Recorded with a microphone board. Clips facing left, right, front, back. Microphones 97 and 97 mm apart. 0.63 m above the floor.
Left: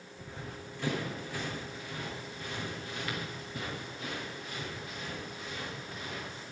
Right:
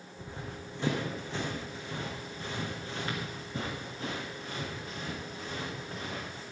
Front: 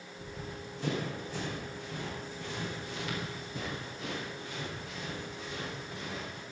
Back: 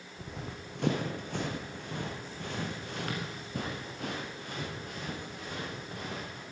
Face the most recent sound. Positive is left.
turn(degrees=-140)